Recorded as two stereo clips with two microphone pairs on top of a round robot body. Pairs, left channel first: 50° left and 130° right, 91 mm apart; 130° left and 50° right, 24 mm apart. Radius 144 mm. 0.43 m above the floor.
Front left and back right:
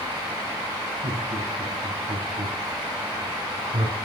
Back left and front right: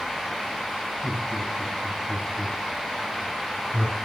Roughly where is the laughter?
Behind.